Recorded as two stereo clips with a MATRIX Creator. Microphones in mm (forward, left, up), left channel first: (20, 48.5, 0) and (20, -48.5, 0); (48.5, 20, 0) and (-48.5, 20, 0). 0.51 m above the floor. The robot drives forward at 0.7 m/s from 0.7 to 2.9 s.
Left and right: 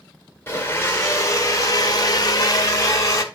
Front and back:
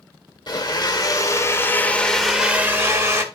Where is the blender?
30° left, 1.4 m; by 3.2 s 130° left, 1.0 m.